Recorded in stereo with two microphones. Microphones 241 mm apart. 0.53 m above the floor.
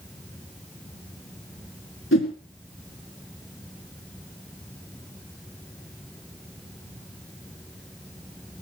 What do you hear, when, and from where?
2.1 s a whoosh: 55° left (ahead or behind), 2.5 m